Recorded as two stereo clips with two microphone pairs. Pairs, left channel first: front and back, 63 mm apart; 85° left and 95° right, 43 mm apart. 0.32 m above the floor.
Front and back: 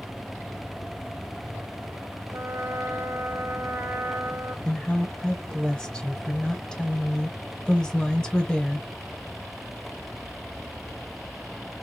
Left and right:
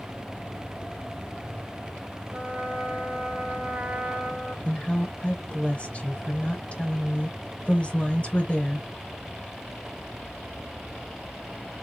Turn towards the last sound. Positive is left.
turn(degrees=70)